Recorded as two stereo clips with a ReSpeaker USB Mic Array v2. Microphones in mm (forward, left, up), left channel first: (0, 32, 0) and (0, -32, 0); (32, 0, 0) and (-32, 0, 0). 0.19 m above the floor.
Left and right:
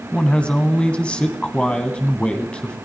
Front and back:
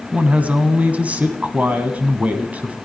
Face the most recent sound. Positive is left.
turn(degrees=145)